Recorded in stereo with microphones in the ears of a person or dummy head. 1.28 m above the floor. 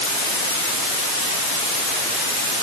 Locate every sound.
Only background noise.